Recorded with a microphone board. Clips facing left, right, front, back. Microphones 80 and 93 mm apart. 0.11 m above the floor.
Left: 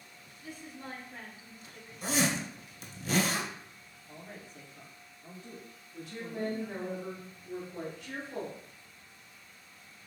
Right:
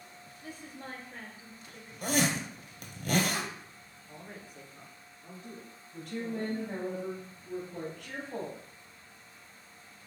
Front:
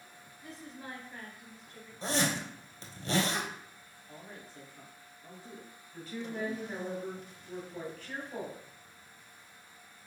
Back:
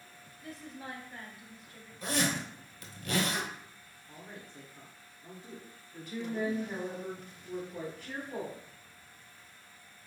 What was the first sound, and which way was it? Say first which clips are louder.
A woman speaking: even, back 2 dB; 100° right.